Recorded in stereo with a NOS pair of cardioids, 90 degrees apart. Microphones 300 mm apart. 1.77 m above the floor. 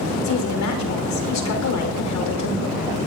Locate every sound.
0.2 s a woman speaking: 65° left, 5 m